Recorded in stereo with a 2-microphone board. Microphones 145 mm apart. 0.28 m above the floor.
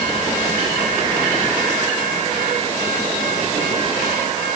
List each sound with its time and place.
Only background noise.